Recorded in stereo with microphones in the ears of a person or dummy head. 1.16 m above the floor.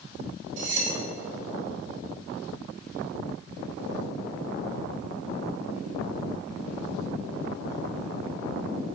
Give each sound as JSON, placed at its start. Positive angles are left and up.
{"t": 0.6, "sound": "cutlery clinking", "side_deg": -50, "distance_m": 4.0}